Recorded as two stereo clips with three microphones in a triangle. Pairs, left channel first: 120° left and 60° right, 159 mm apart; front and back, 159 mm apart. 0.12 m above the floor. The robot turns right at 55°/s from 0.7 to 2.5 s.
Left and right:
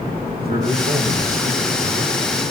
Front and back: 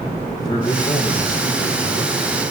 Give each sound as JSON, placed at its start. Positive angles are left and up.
{"t": 0.4, "sound": "a man speaking", "azimuth_deg": -65, "distance_m": 6.0}